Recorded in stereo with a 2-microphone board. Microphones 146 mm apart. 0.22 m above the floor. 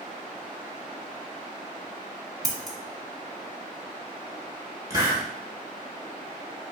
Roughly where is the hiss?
Right.